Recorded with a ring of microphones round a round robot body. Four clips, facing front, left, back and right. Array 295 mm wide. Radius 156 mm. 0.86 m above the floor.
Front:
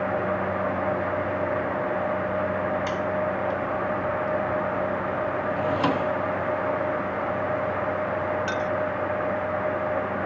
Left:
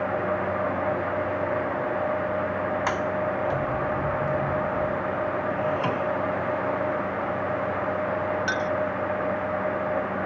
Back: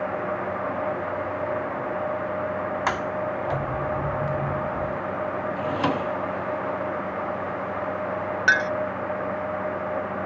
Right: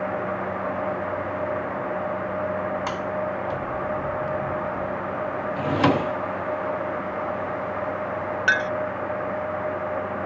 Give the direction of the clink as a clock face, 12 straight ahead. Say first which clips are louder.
Right 3 dB, back 5 dB; 5 o'clock.